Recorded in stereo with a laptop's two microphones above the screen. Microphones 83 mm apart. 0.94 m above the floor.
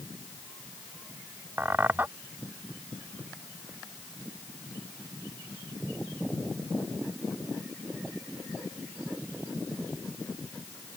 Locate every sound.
1.6 s a squeak: 25° right (ahead or behind)